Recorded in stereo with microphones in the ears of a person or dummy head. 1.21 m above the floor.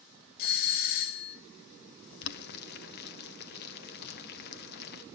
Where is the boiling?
50° left (ahead or behind), 0.9 m.